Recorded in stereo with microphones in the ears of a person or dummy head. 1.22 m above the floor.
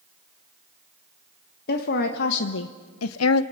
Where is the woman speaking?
55° left (ahead or behind), 1.3 m; by 3.4 s 70° left (ahead or behind), 0.6 m.